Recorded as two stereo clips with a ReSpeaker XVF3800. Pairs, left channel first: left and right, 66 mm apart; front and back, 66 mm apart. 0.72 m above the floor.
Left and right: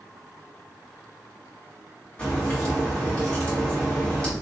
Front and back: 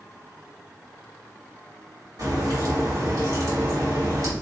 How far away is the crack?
About 2 m.